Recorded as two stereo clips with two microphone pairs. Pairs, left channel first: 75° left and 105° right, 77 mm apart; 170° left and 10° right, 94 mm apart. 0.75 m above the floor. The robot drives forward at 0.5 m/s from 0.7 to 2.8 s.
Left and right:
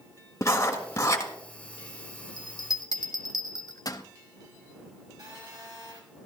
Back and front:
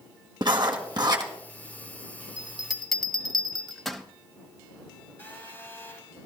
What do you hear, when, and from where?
0.4 s writing: 30° left, 1.5 m; by 1.3 s 35° left, 1.3 m
2.4 s a bell: 65° left, 0.9 m; by 4.0 s 85° left, 0.8 m
5.2 s a phone buzzing: 125° right, 3.5 m